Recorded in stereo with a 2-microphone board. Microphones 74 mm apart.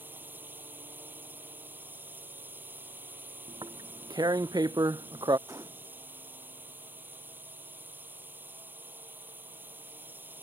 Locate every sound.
0.0 s a drone: 30° right (ahead or behind)
3.5 s tearing paper: 85° right
5.5 s a gunshot: 55° right (ahead or behind)